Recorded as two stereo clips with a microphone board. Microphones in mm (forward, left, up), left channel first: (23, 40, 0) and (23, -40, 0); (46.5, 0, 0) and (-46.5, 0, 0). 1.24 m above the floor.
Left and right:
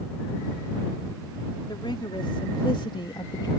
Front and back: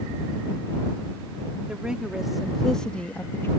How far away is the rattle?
No rattle in this recording.